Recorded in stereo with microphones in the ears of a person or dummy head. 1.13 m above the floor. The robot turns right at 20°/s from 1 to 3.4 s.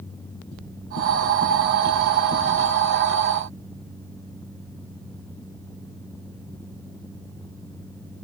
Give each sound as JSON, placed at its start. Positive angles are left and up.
{"t": 0.5, "sound": "knocking", "side_deg": 85, "distance_m": 6.5}